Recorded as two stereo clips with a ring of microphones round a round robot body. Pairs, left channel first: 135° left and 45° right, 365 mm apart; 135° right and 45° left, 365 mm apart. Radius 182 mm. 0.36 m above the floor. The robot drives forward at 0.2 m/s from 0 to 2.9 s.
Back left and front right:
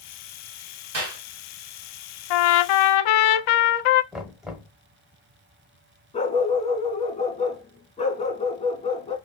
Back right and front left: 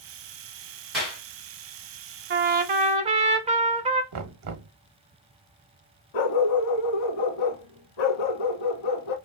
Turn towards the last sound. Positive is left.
turn(degrees=-150)